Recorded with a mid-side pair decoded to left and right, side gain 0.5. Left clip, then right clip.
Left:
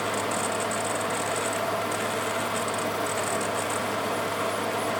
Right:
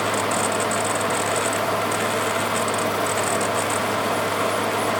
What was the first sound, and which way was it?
A fan, 40° right.